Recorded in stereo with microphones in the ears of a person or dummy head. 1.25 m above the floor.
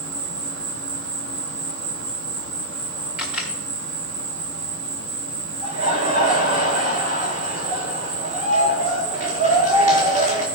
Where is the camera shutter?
5° right (ahead or behind), 1.4 m.